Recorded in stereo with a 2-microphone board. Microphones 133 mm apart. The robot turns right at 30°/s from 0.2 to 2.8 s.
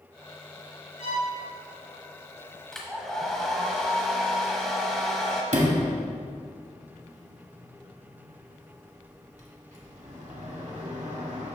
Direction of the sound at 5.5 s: 65° right (ahead or behind).